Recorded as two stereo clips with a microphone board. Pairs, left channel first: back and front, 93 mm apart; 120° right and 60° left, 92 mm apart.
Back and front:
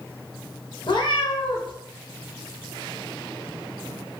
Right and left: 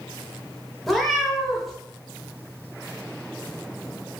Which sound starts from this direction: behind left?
A cat meowing, at 0.9 s.